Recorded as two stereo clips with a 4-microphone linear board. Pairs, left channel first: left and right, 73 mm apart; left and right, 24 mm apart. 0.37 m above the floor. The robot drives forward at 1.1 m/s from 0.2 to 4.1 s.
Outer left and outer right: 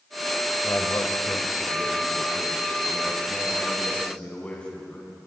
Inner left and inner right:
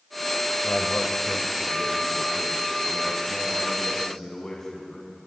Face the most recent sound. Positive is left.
turn(degrees=20)  # may be behind; listen again after turning